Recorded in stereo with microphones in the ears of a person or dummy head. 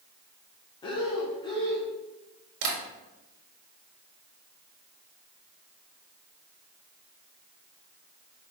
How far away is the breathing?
About 0.7 m.